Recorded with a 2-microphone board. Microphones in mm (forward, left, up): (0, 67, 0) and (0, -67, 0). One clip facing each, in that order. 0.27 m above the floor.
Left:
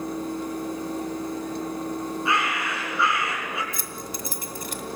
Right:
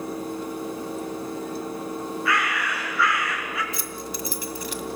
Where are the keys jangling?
50° left (ahead or behind), 1.4 m.